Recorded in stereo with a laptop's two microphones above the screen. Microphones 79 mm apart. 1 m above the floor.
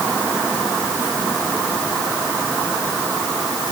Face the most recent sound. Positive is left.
No sound to turn to.